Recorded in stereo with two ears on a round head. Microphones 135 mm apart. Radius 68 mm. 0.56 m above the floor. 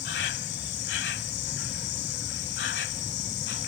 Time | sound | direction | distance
0.0 | an insect | 80° left | ?